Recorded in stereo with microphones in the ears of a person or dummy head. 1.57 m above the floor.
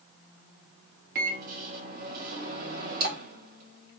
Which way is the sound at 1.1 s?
50° right (ahead or behind).